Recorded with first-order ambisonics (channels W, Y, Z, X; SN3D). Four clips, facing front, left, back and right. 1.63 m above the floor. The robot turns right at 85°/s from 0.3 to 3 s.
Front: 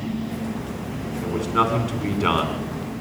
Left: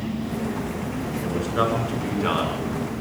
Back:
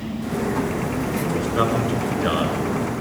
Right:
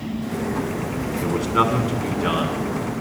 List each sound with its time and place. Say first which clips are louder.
1.2 s a man speaking: right 4 dB, front 2 dB; 80° right, 6 m; by 2.7 s 40° left, 6 m